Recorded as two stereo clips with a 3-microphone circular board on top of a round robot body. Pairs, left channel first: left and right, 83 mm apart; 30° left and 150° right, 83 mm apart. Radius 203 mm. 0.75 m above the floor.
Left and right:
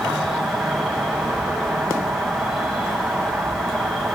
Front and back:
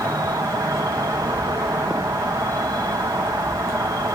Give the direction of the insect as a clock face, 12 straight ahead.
6 o'clock.